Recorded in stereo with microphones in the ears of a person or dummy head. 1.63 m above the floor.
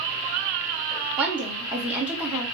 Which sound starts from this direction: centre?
A woman speaking, at 1.2 s.